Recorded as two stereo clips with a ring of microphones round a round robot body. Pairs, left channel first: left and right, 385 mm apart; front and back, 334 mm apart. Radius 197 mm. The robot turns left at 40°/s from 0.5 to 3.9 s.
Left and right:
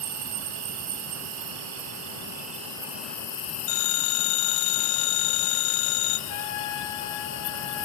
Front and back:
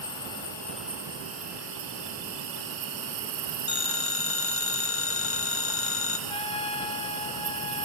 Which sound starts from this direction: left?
A trumpet, at 6.3 s.